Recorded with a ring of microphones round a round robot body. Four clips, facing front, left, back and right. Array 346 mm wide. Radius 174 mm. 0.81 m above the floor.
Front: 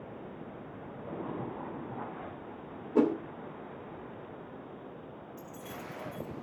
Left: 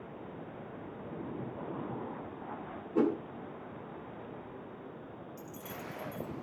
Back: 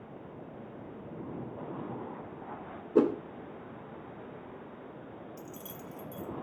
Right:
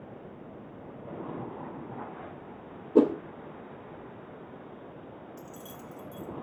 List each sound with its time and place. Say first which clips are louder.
3.0 s a whoosh: right 7 dB, back 1 dB; 110° right, 1.2 m
5.4 s keys jangling: even, front 1 dB; 155° right, 1.4 m